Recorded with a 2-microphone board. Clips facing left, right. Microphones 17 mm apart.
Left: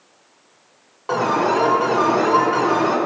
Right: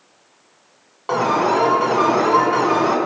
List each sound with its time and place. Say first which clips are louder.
1.1 s an alarm: right 1 dB; 25° right (ahead or behind), 2.0 m